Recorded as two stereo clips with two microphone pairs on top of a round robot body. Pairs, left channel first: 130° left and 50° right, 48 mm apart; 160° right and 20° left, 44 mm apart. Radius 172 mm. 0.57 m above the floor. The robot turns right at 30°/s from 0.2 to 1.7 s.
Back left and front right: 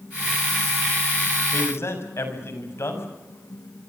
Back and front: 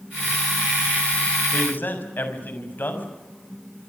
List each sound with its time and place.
1.5 s a man speaking: 155° left, 6 m; by 3.1 s 160° left, 6 m